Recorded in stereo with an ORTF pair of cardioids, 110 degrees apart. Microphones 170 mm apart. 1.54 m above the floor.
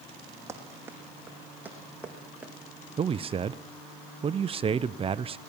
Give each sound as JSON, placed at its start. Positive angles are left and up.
{"t": 0.5, "sound": "running footsteps", "azimuth_deg": -15, "distance_m": 5.0}
{"t": 3.0, "sound": "a man speaking", "azimuth_deg": -35, "distance_m": 0.7}